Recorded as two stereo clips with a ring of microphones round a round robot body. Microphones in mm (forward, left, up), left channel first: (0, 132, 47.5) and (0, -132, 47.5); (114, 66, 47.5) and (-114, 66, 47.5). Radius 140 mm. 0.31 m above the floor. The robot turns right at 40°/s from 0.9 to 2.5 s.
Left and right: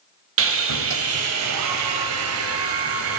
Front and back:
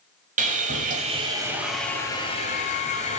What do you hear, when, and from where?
0.4 s sawing: 125° right, 0.9 m; by 3.2 s 60° right, 0.9 m